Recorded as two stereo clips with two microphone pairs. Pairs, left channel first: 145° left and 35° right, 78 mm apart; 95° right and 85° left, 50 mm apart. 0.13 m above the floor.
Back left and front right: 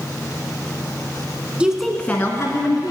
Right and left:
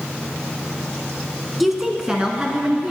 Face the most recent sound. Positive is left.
turn(degrees=145)